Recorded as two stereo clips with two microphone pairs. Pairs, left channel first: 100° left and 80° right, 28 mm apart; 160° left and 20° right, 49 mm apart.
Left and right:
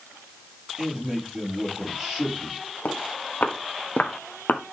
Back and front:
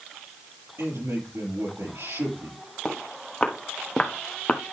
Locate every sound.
0.8 s a man speaking: 10° right, 5.5 m
2.9 s footsteps: 80° left, 2.5 m; by 4.6 s 100° left, 1.1 m